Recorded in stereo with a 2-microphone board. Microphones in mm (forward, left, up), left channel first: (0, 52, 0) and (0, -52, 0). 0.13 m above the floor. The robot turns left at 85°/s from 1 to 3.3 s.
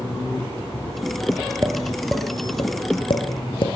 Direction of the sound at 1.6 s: 30° right (ahead or behind).